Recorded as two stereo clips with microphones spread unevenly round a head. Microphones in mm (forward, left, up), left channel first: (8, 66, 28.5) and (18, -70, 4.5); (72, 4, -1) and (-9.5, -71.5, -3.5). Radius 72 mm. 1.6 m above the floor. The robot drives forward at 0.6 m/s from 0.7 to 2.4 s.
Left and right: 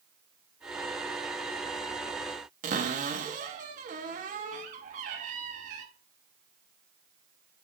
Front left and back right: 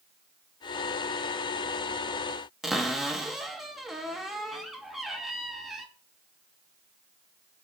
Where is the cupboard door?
50° right, 1.1 m.